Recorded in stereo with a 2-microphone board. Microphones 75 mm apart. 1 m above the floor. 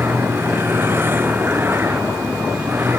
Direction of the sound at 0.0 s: 30° right (ahead or behind).